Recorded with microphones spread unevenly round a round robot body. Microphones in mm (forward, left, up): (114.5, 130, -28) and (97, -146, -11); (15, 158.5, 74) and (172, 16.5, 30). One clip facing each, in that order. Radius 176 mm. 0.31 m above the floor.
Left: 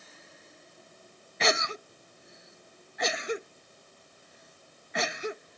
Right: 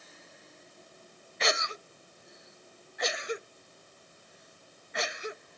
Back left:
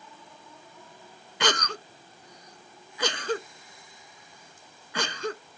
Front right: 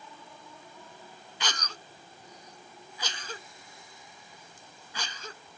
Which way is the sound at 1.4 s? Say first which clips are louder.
Left 3 dB, back left 11 dB; 115° left.